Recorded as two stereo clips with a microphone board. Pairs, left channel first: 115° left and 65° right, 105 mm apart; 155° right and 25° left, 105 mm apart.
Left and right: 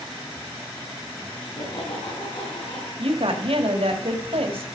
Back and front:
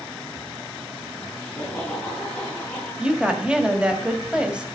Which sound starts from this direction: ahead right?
A woman speaking, at 3.0 s.